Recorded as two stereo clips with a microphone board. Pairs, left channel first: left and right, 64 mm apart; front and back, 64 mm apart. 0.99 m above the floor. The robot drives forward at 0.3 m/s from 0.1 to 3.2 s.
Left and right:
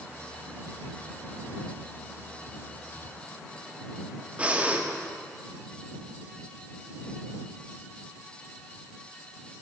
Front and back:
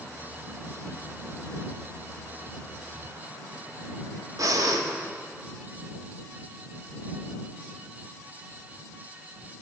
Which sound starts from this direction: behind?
Breathing, at 4.4 s.